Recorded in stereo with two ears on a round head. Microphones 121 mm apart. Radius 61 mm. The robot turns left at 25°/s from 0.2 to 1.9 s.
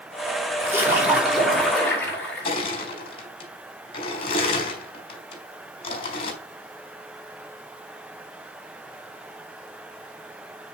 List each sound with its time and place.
0.6 s a splash: 160° right, 5 m; by 2.5 s 170° left, 5 m
2.5 s crushing: 40° left (ahead or behind), 4.5 m